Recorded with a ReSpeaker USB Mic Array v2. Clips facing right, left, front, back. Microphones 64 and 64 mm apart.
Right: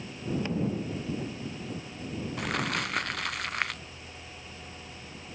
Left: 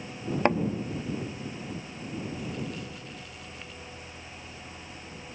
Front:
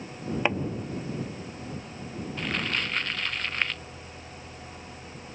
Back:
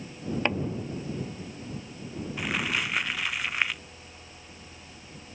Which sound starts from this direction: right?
Crumpling, at 2.4 s.